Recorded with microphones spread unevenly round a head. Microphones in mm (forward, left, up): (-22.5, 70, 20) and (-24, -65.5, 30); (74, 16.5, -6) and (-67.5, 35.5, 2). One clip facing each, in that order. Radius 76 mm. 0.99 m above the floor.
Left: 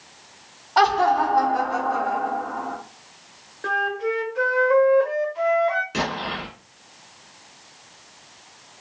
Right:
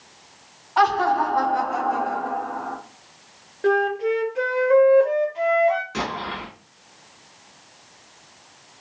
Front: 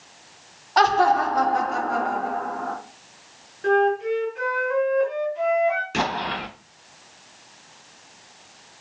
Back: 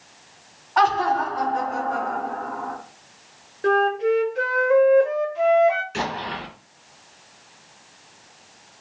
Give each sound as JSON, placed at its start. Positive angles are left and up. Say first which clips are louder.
{"t": 0.8, "sound": "laughter", "louder": "left 1 dB, front 2 dB", "azimuth_deg": 40, "distance_m": 0.9}
{"t": 3.6, "sound": "a flute", "louder": "right 5 dB, even", "azimuth_deg": -150, "distance_m": 0.8}
{"t": 5.9, "sound": "an explosion", "louder": "left 1 dB, front 2 dB", "azimuth_deg": 15, "distance_m": 1.9}